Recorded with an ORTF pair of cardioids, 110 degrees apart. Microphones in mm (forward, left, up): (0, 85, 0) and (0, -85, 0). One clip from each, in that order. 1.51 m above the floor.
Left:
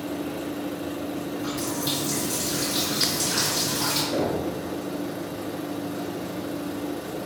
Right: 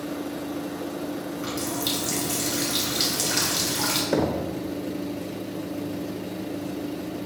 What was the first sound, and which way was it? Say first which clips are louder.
A running tap: even; 65° right.